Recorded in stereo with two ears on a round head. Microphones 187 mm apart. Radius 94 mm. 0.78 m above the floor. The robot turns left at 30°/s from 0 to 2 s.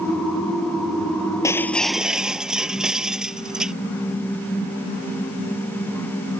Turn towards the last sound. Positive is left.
turn(degrees=-5)  # may be behind; listen again after turning